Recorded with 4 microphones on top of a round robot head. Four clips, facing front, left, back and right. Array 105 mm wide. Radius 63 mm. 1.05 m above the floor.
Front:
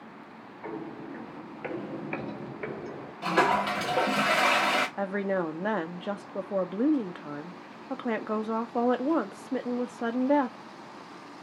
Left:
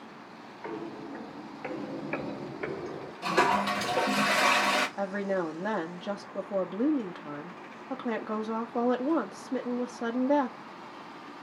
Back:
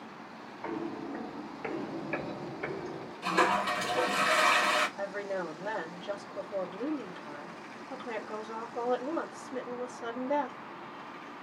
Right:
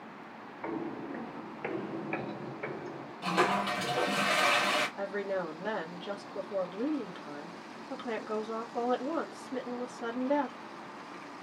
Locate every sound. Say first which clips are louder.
0.6 s footsteps: right 1 dB, back 1 dB; 90° right, 1.2 m; by 3.1 s 55° left, 1.2 m
3.2 s a toilet flushing: left 3 dB, front 3 dB; 20° left, 1.2 m
5.0 s a woman speaking: left 3 dB, front 6 dB; 25° left, 0.9 m